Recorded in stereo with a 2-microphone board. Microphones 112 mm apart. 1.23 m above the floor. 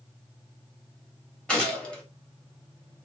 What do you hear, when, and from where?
1.5 s a gunshot: 10° left (ahead or behind), 1.7 m